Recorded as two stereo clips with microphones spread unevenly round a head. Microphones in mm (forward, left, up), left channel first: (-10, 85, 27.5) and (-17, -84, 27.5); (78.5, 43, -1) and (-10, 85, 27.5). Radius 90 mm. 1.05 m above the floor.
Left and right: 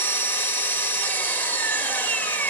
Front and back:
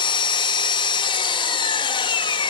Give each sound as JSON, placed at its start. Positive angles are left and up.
{"t": 0.0, "sound": "an engine running", "azimuth_deg": 10, "distance_m": 1.3}